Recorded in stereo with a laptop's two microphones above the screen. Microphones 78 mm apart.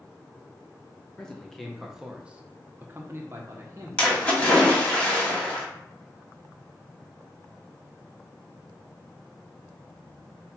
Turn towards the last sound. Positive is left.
turn(degrees=15)  # may be behind; listen again after turning